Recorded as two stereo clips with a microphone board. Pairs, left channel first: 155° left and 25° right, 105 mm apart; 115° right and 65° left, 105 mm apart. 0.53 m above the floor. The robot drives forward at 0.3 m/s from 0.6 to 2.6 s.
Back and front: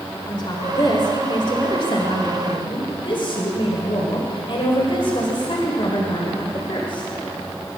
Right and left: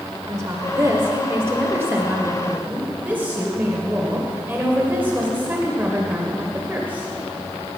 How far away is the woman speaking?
About 1.8 m.